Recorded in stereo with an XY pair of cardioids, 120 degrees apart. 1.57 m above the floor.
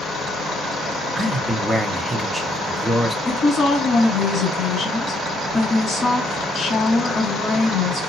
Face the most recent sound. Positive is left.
turn(degrees=40)